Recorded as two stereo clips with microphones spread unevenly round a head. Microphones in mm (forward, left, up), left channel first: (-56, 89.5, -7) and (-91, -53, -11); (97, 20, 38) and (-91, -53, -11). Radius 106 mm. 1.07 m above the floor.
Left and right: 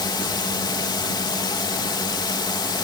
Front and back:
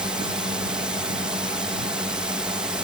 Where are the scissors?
I don't hear scissors.